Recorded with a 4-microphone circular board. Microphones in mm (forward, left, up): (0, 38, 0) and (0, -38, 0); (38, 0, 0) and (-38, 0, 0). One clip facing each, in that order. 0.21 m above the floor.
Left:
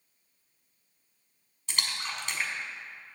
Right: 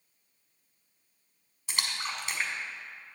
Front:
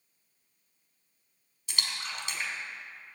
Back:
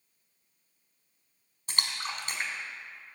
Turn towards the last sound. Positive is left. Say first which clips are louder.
# right 1 dB, back 2 dB
turn(degrees=-170)